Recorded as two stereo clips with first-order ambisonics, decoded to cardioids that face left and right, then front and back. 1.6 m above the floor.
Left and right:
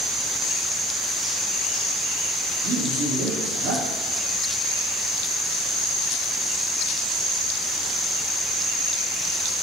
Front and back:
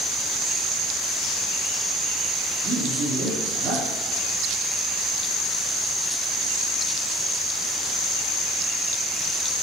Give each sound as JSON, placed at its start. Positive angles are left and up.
{"t": 2.6, "sound": "a man speaking", "azimuth_deg": -130, "distance_m": 3.5}